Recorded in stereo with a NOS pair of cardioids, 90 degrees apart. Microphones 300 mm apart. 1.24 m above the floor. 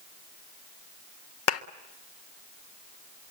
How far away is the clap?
About 1.5 m.